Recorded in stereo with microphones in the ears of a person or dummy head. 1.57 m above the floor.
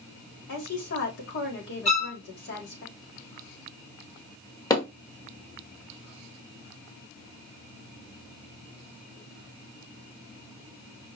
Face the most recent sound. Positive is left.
turn(degrees=25)  # may be behind; listen again after turning